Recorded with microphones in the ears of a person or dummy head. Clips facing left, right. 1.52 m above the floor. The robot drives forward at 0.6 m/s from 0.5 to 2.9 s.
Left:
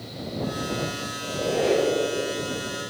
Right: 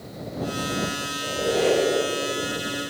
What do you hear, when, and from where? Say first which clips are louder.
1.2 s a squeak: right 2 dB; 15° right (ahead or behind), 7 m